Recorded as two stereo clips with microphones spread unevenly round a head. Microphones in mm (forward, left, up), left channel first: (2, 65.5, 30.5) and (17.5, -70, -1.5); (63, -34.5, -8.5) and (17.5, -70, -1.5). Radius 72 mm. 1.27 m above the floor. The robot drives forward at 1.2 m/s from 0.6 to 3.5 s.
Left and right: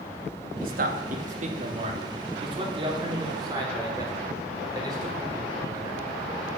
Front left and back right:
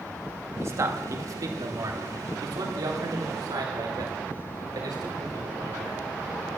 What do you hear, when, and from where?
0.6 s a man speaking: 100° right, 2.5 m; by 6.0 s 150° right, 4.5 m